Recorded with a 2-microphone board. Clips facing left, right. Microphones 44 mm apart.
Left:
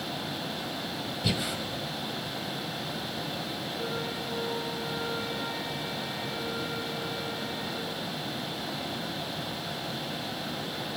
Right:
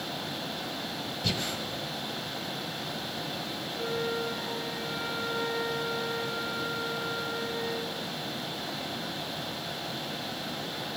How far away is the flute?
About 6.5 m.